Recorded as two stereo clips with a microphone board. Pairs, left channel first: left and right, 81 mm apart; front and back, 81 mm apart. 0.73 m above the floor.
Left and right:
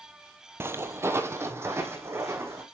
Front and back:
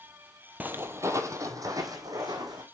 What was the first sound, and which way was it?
Footsteps, 130° right.